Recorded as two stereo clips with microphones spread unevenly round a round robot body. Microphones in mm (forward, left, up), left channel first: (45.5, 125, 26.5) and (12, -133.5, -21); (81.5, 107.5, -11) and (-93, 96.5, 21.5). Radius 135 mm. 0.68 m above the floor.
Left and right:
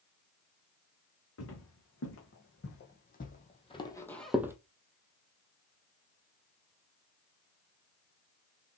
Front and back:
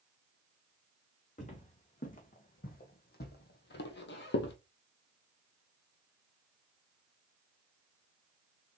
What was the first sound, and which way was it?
Footsteps, 55° left.